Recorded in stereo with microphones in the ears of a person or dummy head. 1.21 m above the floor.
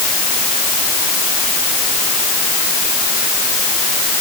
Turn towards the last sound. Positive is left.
No sound to turn to.